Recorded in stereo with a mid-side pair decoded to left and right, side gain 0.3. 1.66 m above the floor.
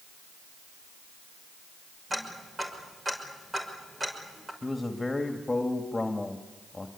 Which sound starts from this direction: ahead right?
Ticking, at 2.1 s.